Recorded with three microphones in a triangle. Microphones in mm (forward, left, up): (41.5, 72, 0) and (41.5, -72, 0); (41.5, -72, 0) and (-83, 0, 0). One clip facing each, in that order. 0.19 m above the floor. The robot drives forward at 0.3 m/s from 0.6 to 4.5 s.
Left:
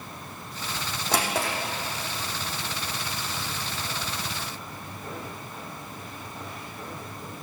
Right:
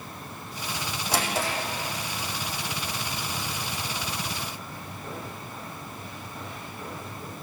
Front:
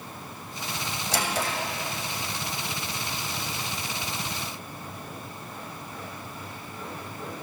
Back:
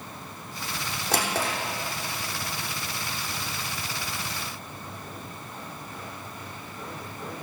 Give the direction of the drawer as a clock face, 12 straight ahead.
8 o'clock.